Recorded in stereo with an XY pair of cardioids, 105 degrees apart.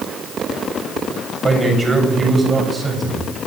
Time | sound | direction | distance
1.4 | a man speaking | 30° right | 8 m